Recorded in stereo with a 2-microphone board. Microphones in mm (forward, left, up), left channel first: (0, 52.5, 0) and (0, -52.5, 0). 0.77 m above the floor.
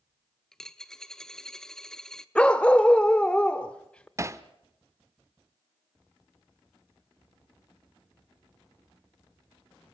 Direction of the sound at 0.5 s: 5° left (ahead or behind).